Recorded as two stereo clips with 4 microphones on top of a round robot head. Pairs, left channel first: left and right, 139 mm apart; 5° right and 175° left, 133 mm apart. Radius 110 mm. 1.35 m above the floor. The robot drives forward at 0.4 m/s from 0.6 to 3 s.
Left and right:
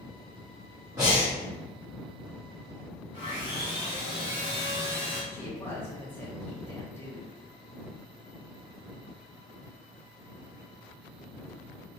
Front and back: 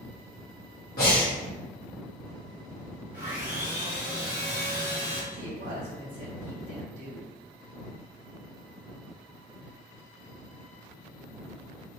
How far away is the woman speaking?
About 1.4 m.